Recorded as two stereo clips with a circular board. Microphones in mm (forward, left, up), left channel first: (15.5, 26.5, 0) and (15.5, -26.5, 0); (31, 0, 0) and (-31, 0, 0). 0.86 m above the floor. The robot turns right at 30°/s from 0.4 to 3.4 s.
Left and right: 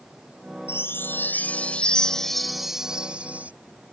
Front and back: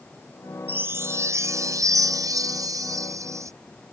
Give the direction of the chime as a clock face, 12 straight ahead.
8 o'clock.